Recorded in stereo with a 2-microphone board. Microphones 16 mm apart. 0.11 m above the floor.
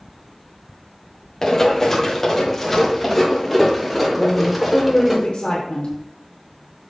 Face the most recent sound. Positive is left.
turn(degrees=65)  # may be behind; listen again after turning